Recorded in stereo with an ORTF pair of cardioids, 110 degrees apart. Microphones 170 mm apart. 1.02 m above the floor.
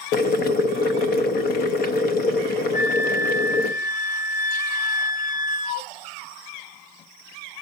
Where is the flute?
50° left, 0.5 m.